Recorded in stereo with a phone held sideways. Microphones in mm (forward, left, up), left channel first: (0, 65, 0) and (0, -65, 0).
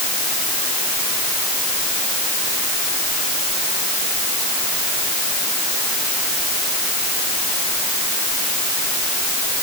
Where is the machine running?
No machine running in this recording.